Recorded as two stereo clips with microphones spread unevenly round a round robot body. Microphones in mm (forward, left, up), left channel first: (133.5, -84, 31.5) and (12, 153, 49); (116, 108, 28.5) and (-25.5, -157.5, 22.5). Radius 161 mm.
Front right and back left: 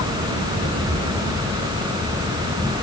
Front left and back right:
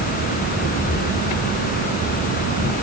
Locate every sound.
Only background noise.